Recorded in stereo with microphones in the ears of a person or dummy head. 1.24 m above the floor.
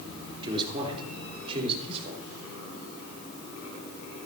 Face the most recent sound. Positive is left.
turn(degrees=-35)  # may be behind; listen again after turning